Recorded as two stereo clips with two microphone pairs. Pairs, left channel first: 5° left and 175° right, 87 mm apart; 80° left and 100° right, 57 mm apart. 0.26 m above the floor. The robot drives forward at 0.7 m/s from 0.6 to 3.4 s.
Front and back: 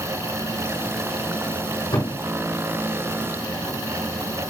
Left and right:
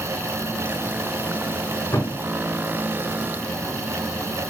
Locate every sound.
1.9 s a thud: 45° left, 5 m; by 2.2 s 50° left, 4.5 m